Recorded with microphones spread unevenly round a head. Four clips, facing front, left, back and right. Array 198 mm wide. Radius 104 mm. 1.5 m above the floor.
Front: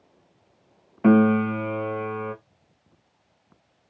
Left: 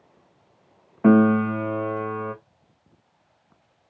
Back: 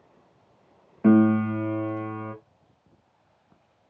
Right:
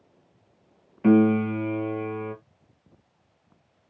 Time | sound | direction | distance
1.0 | a piano | 90° left | 0.6 m